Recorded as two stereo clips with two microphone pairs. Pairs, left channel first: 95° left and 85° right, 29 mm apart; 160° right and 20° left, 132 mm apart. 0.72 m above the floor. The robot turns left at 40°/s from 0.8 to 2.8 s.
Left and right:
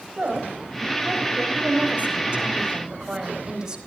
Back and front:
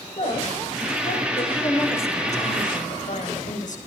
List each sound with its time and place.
0.2 s a woman speaking: 120° right, 4 m; by 1.4 s 150° right, 4 m
1.5 s a woman speaking: 95° right, 4.5 m; by 3.8 s 145° right, 4.5 m